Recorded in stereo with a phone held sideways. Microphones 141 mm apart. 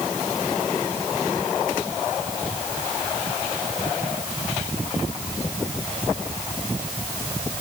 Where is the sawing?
No sawing in this recording.